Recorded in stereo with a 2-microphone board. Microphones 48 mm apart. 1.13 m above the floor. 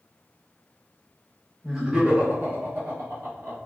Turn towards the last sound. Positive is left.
turn(degrees=-75)  # may be behind; listen again after turning